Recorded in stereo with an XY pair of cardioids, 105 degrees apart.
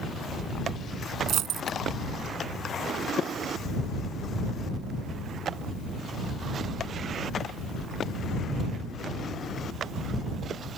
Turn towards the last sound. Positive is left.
turn(degrees=-70)